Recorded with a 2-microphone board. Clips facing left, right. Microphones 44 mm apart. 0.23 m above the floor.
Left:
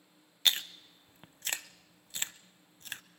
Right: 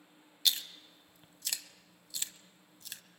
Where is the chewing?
40° left (ahead or behind), 0.6 m.